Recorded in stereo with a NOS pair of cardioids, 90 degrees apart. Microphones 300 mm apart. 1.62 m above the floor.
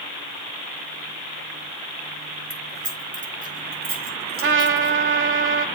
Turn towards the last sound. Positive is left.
turn(degrees=-40)